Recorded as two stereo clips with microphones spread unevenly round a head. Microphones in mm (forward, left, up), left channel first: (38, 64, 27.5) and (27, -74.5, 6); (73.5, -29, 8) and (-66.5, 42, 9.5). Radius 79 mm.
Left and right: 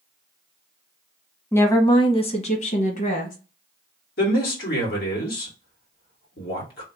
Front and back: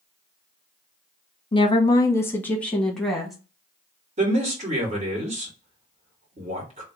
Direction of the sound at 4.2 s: 105° left.